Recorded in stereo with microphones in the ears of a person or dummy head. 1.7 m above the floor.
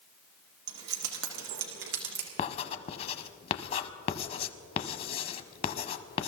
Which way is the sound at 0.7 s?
70° right (ahead or behind).